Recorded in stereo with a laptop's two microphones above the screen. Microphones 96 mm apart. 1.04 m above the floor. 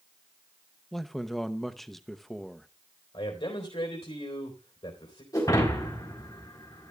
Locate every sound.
0.9 s a man speaking: 5° left (ahead or behind), 0.8 m
3.1 s a man speaking: 70° left (ahead or behind), 3.5 m
5.3 s breaking glass: 40° left (ahead or behind), 4 m